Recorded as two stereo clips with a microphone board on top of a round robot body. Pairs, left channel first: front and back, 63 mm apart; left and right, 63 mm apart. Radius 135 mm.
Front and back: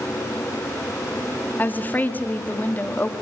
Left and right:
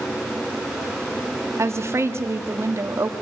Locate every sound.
1.6 s a woman speaking: 55° right, 1.5 m